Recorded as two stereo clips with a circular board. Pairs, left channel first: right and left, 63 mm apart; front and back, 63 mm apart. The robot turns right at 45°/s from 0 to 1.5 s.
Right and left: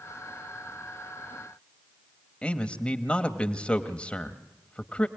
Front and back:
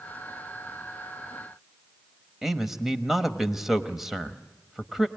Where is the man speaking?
105° right, 1.0 m.